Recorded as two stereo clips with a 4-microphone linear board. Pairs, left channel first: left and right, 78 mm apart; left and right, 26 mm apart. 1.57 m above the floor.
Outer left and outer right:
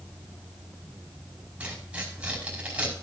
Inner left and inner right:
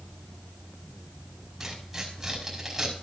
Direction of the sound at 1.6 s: 15° right (ahead or behind).